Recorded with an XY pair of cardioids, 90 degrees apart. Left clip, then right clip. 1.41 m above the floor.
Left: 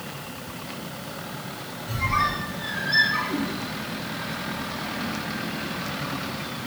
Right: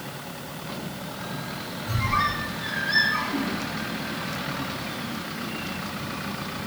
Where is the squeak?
15° right, 1.2 m.